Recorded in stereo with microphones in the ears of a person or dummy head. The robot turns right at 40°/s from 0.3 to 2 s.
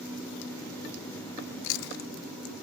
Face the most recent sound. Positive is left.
turn(degrees=80)